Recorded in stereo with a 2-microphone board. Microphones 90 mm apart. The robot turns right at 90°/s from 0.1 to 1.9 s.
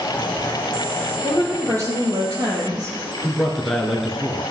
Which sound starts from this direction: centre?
A man speaking, at 3.2 s.